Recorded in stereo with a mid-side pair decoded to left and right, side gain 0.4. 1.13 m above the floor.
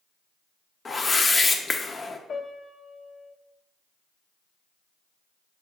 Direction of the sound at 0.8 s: 30° left.